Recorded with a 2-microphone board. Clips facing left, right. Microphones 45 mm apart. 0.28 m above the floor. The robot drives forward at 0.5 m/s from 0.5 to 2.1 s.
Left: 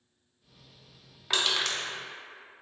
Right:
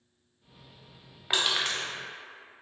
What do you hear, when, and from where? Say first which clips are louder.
1.3 s crushing: right 1 dB; 15° right (ahead or behind), 0.8 m; by 1.9 s 20° right (ahead or behind), 0.6 m